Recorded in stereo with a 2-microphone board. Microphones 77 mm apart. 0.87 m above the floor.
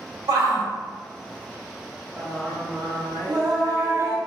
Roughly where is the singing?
Right.